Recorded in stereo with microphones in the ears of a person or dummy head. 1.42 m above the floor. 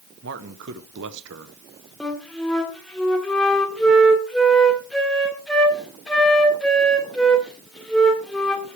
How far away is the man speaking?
About 1.0 m.